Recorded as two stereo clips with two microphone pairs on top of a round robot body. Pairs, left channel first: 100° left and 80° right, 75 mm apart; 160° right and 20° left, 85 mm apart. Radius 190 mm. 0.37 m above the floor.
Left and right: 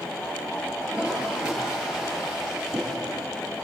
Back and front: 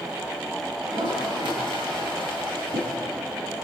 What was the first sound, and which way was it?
A toilet flushing, straight ahead.